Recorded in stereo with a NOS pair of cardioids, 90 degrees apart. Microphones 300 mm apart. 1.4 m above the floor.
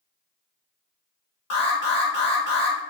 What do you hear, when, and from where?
1.5 s an alarm: 60° left, 1.4 m